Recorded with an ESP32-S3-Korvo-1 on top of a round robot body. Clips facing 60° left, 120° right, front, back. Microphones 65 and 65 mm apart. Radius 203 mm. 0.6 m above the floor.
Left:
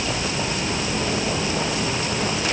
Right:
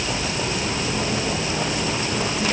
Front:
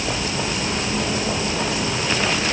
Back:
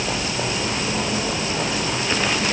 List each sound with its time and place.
Only background noise.